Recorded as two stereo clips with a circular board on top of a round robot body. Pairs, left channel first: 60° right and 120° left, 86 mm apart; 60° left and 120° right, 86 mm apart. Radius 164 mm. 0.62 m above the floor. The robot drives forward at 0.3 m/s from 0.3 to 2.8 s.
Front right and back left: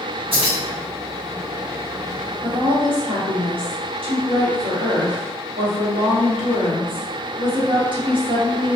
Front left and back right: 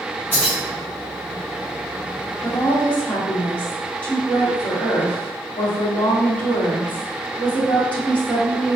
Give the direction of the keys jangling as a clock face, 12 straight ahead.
8 o'clock.